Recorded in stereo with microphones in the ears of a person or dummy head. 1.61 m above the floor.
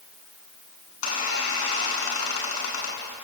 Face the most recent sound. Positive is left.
turn(degrees=75)  # may be behind; listen again after turning